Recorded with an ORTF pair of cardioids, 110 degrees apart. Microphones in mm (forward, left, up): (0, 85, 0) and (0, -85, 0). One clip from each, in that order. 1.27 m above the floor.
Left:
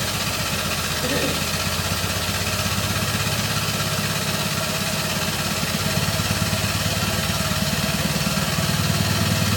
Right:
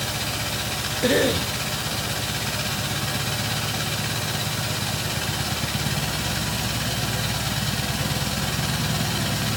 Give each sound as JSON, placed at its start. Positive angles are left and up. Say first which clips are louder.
{"t": 0.0, "sound": "a machine running", "louder": "left 3 dB", "azimuth_deg": 50, "distance_m": 5.5}
{"t": 1.0, "sound": "a cough", "louder": "right 6 dB", "azimuth_deg": -40, "distance_m": 1.0}